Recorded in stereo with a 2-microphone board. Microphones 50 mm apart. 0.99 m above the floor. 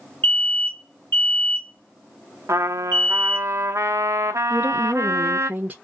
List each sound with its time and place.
0.2 s an alarm: 35° left (ahead or behind), 2.5 m
2.5 s a trumpet: 75° right (ahead or behind), 0.5 m
4.5 s a woman speaking: 30° right (ahead or behind), 0.7 m